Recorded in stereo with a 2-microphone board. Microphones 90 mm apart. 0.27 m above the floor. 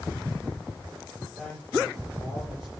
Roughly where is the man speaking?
Centre.